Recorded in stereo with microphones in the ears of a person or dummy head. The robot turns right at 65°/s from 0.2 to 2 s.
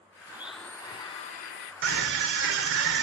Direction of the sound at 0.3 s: 15° right.